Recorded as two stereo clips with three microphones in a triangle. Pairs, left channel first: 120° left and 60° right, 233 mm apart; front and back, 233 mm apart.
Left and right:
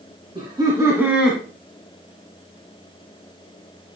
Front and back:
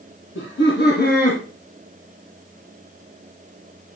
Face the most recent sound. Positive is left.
turn(degrees=35)